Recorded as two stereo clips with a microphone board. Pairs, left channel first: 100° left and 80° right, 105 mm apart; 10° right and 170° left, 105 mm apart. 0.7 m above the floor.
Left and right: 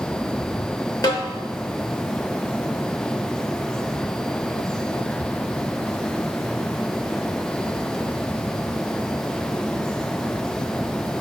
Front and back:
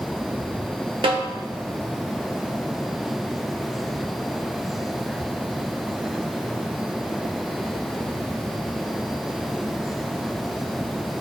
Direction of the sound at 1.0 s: 145° left.